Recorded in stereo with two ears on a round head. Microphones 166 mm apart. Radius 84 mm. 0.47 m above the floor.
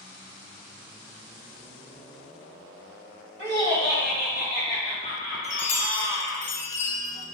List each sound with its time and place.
3.4 s laughter: 55° right (ahead or behind), 1.6 m; by 6.4 s 70° right (ahead or behind), 3 m
5.4 s a chime: 40° left (ahead or behind), 0.6 m